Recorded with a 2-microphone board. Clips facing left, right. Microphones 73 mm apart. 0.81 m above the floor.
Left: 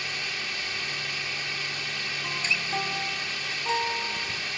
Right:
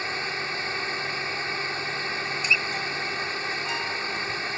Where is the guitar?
35° left (ahead or behind).